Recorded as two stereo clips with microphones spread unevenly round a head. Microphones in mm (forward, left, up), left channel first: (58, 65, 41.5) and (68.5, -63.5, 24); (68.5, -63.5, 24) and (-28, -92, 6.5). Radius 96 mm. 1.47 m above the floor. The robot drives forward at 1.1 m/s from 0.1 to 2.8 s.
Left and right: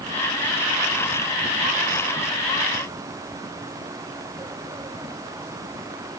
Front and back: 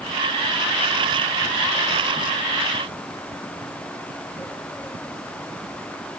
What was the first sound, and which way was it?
Only background noise.